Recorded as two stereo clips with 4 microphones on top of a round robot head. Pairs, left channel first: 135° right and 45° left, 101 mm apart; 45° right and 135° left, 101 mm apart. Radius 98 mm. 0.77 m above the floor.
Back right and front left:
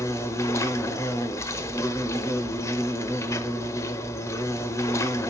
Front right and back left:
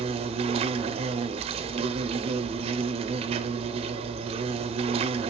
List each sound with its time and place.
0.0 s an insect: 160° left, 0.8 m